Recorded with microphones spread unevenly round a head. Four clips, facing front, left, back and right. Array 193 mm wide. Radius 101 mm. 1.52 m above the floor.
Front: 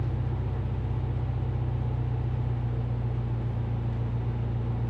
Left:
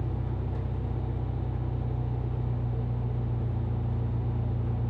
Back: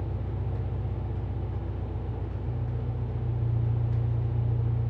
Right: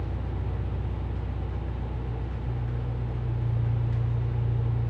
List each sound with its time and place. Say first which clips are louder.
0.0 s an engine running: left 1 dB, front 3 dB; 85° left, 1.6 m